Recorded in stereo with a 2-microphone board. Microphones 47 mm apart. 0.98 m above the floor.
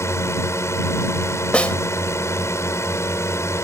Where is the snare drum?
25° left (ahead or behind).